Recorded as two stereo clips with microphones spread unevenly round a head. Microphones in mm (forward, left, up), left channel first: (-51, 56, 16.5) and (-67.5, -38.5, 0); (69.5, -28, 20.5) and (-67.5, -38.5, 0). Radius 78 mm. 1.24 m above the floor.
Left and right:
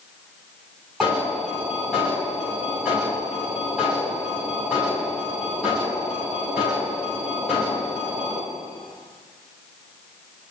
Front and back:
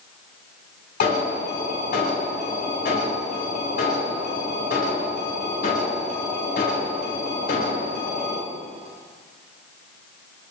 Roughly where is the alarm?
Ahead.